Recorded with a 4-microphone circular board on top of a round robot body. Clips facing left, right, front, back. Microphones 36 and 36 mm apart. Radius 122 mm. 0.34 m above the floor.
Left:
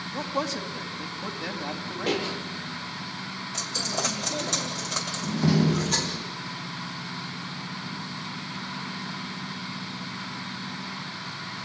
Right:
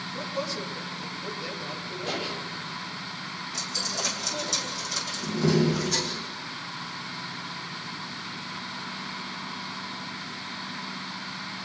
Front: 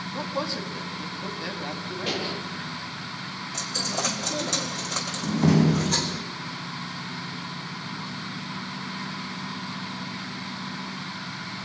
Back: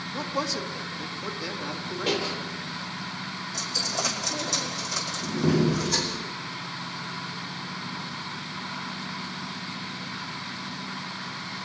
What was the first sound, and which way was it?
A man speaking, 70° left.